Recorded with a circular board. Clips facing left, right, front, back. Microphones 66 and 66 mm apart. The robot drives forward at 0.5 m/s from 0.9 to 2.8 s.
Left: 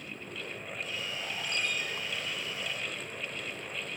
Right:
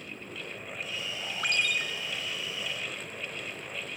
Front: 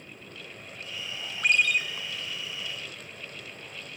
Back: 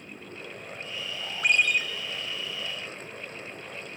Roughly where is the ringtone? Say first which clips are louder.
Right 6 dB, even; right.